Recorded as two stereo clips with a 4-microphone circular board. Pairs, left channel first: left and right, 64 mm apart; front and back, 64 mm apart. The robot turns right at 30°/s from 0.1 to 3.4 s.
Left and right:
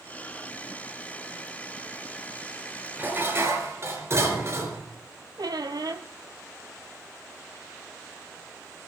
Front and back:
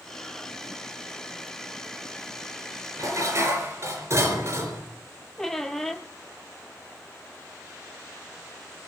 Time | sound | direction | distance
3.0 | dishes clattering | 150° right | 3.5 m
5.4 | a squeak | 85° right | 1.2 m